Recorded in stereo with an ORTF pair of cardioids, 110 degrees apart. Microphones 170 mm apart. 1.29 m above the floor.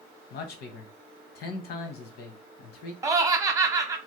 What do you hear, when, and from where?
0.3 s a man speaking: 70° left, 0.9 m
3.0 s laughter: 20° right, 0.9 m